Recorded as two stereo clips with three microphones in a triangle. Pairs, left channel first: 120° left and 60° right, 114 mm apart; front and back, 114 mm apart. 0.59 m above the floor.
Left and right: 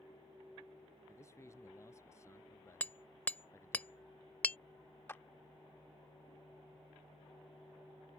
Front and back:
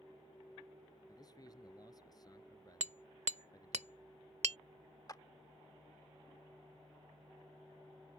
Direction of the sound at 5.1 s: 50° left.